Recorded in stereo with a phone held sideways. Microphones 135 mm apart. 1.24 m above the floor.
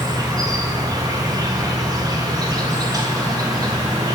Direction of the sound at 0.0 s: 30° right (ahead or behind).